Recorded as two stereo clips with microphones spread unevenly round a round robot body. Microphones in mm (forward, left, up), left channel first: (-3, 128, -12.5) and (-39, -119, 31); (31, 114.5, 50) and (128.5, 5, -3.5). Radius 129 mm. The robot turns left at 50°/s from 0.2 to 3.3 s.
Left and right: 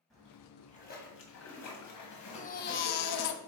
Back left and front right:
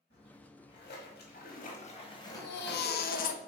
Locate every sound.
0.1 s a splash: 170° left, 1.8 m; by 3.4 s 15° left, 1.8 m
2.4 s a baby crying: 145° left, 0.7 m; by 3.4 s 100° left, 0.7 m